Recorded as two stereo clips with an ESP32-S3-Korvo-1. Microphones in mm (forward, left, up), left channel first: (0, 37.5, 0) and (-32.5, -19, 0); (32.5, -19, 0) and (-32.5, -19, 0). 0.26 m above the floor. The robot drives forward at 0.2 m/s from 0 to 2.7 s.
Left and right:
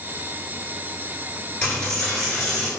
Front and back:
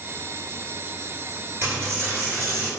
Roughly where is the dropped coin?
Behind left.